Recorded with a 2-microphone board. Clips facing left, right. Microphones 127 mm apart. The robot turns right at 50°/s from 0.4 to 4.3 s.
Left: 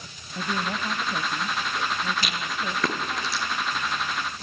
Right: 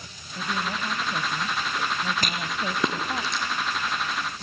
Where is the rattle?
45° right (ahead or behind), 3.5 m; by 3.4 s 10° left (ahead or behind), 3.5 m.